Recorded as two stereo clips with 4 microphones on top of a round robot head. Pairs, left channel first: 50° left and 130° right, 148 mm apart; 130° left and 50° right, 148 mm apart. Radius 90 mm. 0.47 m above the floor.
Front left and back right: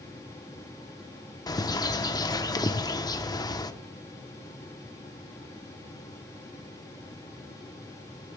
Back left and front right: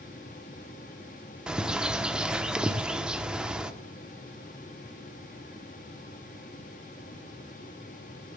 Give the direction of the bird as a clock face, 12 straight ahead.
11 o'clock.